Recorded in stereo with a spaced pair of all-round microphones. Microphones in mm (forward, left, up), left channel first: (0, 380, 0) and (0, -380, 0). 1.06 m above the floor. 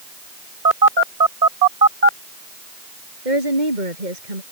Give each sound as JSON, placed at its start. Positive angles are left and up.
{"t": 0.7, "sound": "a phone buzzing", "side_deg": -60}
{"t": 3.2, "sound": "a woman speaking", "side_deg": -75}